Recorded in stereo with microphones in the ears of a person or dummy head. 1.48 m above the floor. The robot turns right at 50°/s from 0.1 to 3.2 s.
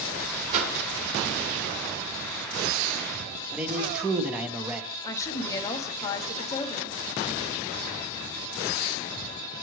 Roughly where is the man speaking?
Centre.